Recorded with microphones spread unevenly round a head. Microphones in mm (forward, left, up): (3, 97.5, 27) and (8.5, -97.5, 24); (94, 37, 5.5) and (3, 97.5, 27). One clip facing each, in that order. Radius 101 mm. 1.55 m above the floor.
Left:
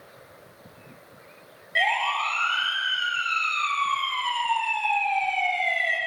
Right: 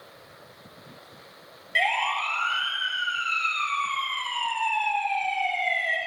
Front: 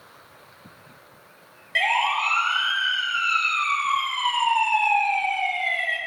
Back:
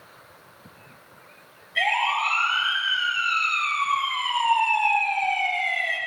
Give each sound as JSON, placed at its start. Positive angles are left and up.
{"t": 1.8, "sound": "a siren", "azimuth_deg": -35, "distance_m": 9.5}